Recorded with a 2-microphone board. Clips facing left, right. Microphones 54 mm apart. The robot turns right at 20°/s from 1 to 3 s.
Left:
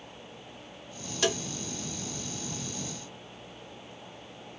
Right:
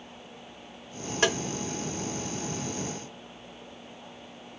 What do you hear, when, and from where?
1.2 s tapping: 40° right (ahead or behind), 0.7 m; by 1.4 s 35° right (ahead or behind), 0.7 m